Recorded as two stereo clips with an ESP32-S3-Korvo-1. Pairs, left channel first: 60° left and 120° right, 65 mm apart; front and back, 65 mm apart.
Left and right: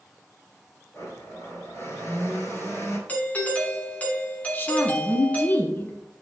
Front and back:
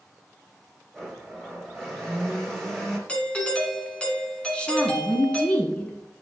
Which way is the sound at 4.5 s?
60° left.